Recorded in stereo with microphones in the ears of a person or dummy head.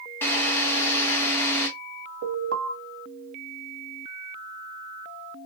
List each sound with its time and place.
0.2 s a drill: 15° left (ahead or behind), 1.3 m
2.2 s an alarm: 70° right (ahead or behind), 2 m